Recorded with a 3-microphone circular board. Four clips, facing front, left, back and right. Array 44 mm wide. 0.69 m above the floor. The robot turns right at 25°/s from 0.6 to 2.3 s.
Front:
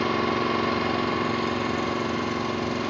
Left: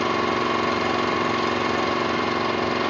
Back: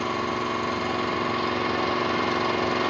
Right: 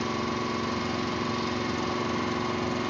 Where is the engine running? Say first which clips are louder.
Left 8 dB, front 2 dB; 80° left, 1.2 m; by 2.9 s 120° left, 1.2 m.